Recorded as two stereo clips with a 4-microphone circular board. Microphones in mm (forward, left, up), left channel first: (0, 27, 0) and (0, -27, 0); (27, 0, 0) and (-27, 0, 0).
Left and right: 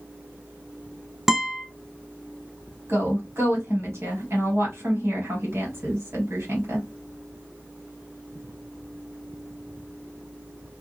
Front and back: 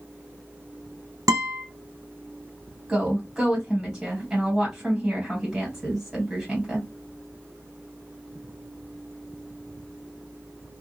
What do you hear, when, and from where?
1.3 s a guitar: 175° right, 0.7 m
2.9 s a woman speaking: 110° right, 1.8 m